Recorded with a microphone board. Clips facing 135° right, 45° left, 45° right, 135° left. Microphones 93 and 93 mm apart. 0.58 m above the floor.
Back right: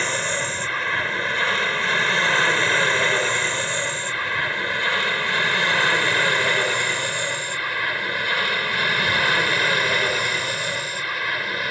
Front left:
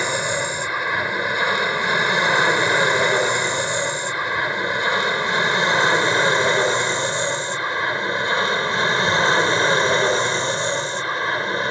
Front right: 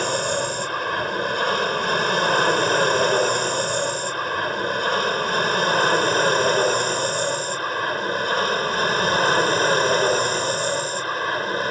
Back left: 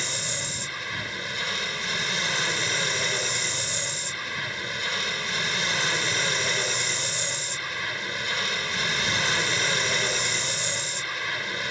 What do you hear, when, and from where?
0.0 s an aircraft: 30° right; by 11.7 s 10° right